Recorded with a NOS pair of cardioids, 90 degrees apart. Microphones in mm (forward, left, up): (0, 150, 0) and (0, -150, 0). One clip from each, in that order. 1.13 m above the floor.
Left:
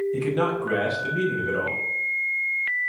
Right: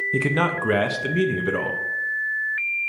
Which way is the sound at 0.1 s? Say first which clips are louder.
Right 2 dB; 45° right.